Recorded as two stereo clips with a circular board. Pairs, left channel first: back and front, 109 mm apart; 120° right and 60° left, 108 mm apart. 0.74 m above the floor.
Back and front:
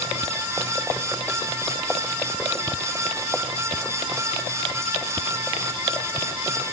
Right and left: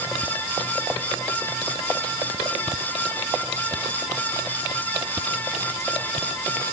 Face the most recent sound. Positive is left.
No sound to turn to.